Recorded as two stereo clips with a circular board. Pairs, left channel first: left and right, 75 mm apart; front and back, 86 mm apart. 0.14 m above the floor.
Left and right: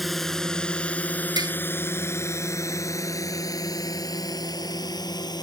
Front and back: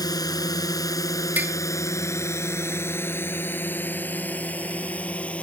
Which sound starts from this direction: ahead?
A drone, at 0.0 s.